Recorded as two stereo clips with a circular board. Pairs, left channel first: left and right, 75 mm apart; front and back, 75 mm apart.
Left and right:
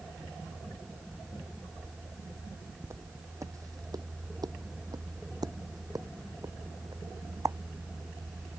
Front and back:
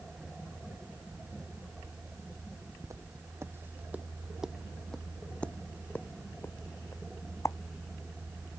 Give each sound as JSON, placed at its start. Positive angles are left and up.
{"t": 2.8, "sound": "footsteps", "azimuth_deg": -140}